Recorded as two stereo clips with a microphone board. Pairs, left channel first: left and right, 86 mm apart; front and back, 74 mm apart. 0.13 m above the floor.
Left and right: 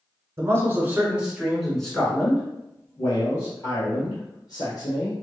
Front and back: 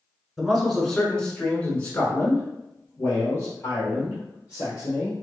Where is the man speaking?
95° right, 1.2 m; by 5.1 s 50° left, 2.5 m.